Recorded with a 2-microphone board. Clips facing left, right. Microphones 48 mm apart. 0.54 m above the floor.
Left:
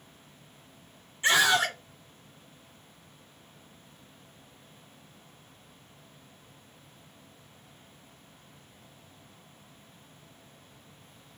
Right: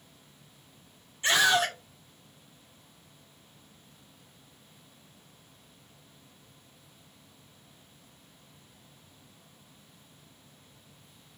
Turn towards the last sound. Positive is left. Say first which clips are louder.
# left 1 dB
turn(degrees=15)  # may be behind; listen again after turning